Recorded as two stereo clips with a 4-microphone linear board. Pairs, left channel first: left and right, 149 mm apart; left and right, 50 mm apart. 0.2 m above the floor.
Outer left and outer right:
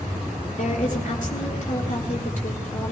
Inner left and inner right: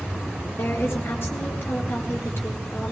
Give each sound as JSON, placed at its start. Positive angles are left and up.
{"t": 0.6, "sound": "a woman speaking", "side_deg": 55, "distance_m": 4.0}